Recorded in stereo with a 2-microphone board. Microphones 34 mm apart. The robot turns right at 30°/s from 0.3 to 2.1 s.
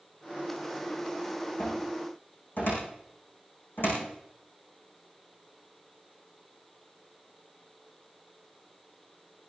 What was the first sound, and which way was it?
A cupboard door, 80° left.